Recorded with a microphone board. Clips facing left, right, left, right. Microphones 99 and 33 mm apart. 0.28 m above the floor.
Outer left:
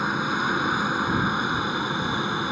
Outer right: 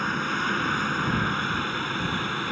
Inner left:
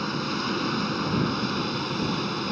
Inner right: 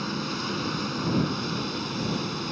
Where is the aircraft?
15° left (ahead or behind); by 2.5 s 20° left (ahead or behind).